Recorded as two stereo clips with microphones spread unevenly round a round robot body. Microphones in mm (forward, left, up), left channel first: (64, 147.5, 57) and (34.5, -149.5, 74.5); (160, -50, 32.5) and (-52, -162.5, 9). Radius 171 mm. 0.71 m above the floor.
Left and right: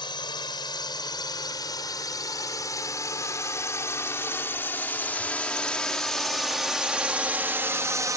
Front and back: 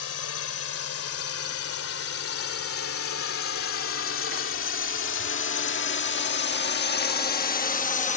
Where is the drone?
10° left; by 8.2 s 20° right.